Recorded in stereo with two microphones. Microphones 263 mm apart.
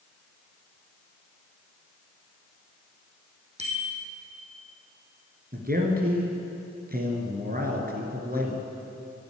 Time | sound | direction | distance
3.6 | a bicycle bell | 25° right (ahead or behind) | 3 m
5.5 | a man speaking | 35° right (ahead or behind) | 2 m